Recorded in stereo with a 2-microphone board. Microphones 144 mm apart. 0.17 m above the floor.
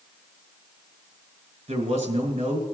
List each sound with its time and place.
1.7 s a man speaking: 45° right (ahead or behind), 2.5 m